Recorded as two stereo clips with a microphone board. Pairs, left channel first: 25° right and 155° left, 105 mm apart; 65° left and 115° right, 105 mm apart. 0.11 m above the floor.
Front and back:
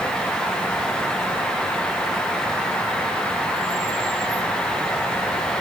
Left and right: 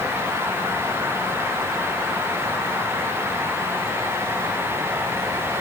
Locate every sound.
Only background noise.